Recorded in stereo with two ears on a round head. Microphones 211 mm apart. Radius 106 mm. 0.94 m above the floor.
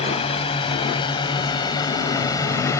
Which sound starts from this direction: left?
A drone, at 0.0 s.